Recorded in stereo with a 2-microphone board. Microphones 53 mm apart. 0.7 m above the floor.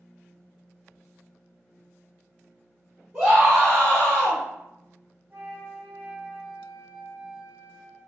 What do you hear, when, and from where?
3.1 s a scream: 15° right (ahead or behind), 0.9 m; by 4.4 s 55° left (ahead or behind), 1.0 m
5.3 s a flute: 35° right (ahead or behind), 1.0 m